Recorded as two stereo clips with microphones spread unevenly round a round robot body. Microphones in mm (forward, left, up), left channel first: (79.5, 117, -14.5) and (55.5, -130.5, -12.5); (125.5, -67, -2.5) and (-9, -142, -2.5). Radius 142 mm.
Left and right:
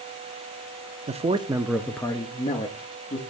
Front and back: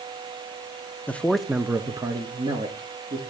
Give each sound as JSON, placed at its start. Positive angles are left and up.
{"t": 1.1, "sound": "a man speaking", "azimuth_deg": -45, "distance_m": 0.6}